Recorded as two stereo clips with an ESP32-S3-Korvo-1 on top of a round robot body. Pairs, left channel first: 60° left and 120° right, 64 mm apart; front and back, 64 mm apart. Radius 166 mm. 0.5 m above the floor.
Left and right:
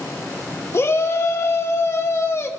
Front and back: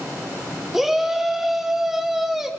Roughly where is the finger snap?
No finger snap in this recording.